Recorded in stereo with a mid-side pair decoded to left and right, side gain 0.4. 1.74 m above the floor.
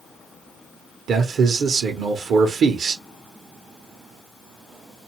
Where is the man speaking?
70° right, 1.0 m.